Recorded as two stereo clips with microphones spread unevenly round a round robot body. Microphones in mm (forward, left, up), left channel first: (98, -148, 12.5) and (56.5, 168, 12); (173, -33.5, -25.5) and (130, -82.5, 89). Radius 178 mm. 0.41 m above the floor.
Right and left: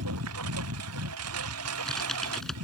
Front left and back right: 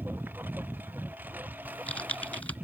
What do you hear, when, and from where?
0.0 s a lawn mower: 150° left
1.6 s typing on a keyboard: 5° left